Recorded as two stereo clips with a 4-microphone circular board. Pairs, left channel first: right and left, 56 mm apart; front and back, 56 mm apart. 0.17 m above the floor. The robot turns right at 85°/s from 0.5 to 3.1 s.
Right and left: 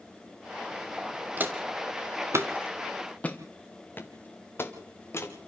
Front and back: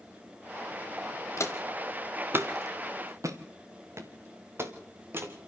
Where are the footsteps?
30° left, 2 m; by 5.3 s 130° right, 3 m.